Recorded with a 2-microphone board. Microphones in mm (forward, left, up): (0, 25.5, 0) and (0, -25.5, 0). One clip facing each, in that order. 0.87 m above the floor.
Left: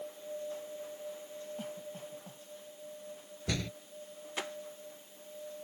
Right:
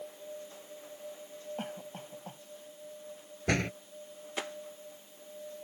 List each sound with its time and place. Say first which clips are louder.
1.6 s a cough: right 1 dB; 55° right (ahead or behind)
3.5 s a door slam: right 7 dB; 50° right (ahead or behind)